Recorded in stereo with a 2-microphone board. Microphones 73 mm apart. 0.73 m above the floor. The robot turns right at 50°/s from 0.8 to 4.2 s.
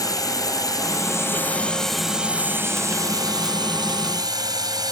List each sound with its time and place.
0.0 s a drone: 120° left; by 4.9 s 70° right